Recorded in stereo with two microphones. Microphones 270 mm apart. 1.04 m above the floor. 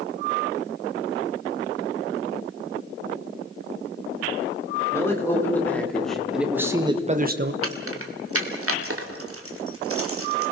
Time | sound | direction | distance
4.9 | a man speaking | 10° left (ahead or behind) | 4 m
7.6 | keys jangling | 60° right (ahead or behind) | 2.0 m